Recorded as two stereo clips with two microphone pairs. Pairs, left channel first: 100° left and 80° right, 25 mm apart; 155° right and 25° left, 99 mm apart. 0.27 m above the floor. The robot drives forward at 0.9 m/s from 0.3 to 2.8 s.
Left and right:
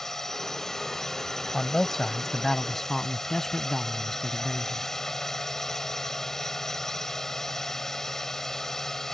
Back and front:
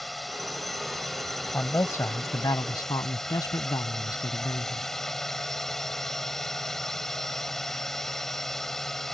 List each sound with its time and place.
0.0 s a drone: 115° left; by 9.1 s 125° left
1.5 s a man speaking: 155° left; by 4.9 s 170° left